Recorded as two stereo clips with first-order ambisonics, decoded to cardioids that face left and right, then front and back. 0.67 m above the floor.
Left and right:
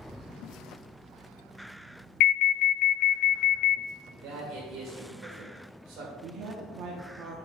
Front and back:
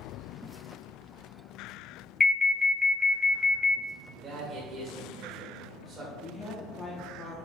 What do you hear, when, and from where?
2.2 s an alarm: 75° left, 0.6 m
4.1 s a man speaking: 120° right, 2.5 m
6.2 s a woman speaking: 65° right, 0.9 m